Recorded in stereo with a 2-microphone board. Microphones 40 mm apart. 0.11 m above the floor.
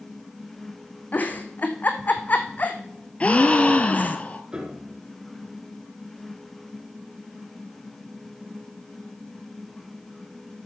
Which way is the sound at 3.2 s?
35° left (ahead or behind).